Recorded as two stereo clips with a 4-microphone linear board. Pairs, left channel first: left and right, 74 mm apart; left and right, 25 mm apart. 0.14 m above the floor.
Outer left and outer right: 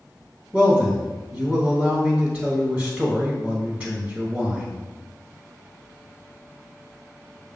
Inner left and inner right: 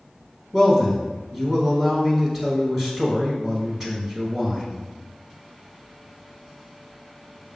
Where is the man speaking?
20° right (ahead or behind), 1.3 m.